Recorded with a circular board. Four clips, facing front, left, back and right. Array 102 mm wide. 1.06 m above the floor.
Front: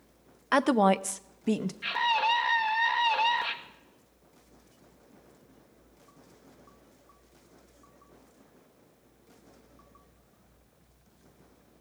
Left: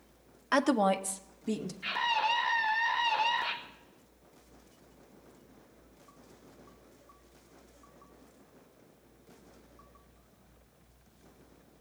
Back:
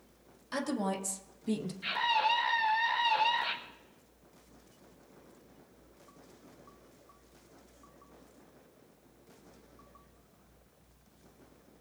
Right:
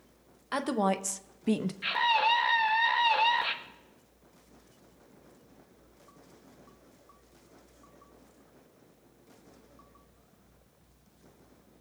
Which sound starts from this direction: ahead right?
A scream, at 1.8 s.